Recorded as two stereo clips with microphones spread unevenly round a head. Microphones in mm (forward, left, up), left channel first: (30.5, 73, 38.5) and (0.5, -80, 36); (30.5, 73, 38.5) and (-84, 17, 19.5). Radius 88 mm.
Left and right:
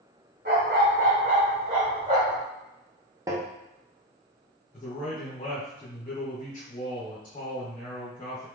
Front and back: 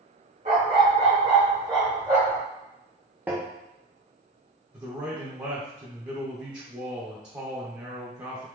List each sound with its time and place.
0.5 s a dog barking: 120° right, 1.7 m; by 2.4 s 60° right, 1.4 m
3.3 s tapping: 70° right, 0.5 m
4.7 s a man speaking: 140° left, 1.1 m